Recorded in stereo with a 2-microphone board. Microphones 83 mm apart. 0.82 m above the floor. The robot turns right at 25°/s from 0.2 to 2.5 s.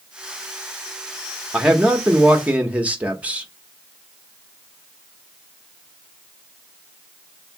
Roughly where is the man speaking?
Centre.